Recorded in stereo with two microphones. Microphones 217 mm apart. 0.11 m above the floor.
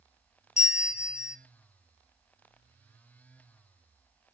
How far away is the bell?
About 0.6 m.